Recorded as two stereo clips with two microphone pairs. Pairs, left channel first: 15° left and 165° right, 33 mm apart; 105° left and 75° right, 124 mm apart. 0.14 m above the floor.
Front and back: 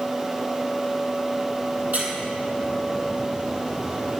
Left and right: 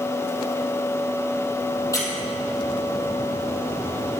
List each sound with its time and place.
1.9 s a squeak: 165° left, 3.5 m